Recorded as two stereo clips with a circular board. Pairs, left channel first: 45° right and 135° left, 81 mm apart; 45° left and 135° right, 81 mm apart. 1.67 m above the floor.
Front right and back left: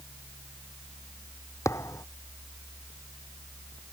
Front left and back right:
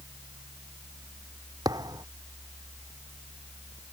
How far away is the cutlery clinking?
No cutlery clinking in this recording.